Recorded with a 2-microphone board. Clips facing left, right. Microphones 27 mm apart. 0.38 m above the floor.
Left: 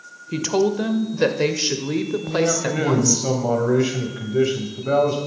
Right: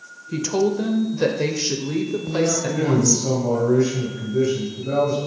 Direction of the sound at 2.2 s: 50° left (ahead or behind).